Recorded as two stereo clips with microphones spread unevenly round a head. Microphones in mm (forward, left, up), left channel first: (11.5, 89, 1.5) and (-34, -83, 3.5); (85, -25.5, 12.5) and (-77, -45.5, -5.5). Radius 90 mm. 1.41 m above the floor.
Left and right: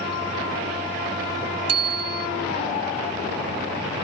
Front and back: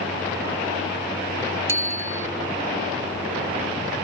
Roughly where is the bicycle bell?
Right.